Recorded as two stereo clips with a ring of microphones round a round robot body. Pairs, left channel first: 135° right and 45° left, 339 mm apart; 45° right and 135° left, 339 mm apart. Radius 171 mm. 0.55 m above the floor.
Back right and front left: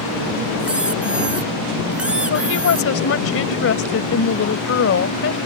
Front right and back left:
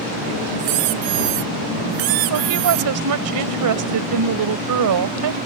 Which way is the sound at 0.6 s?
130° left.